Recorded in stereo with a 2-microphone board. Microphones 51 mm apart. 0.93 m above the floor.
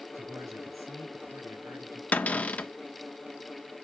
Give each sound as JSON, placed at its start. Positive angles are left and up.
{"t": 0.1, "sound": "a man speaking", "side_deg": -85, "distance_m": 5.0}
{"t": 2.1, "sound": "a cupboard door", "side_deg": 30, "distance_m": 0.6}